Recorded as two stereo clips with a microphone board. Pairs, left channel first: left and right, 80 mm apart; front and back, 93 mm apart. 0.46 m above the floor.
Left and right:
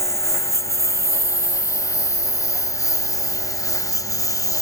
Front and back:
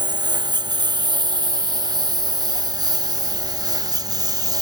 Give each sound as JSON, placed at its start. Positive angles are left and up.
{"t": 0.0, "sound": "a lawn mower", "azimuth_deg": 145}